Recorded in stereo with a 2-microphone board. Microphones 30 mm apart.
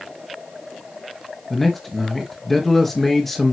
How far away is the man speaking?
About 2 m.